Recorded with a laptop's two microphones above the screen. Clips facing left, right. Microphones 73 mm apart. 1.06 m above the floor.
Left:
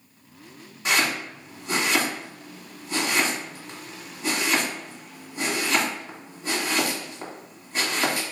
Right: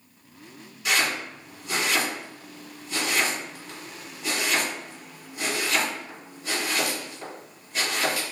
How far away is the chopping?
About 1.7 m.